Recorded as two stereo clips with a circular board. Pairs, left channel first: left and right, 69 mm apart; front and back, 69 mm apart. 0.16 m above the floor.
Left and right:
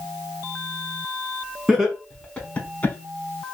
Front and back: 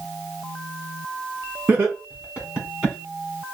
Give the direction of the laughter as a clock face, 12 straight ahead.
5 o'clock.